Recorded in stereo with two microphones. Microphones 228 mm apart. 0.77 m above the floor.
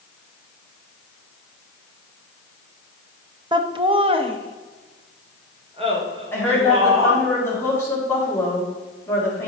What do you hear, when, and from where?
3.5 s laughter: 20° right (ahead or behind), 0.8 m; by 7.2 s 25° right (ahead or behind), 3.5 m
6.3 s a woman speaking: 10° left (ahead or behind), 4.5 m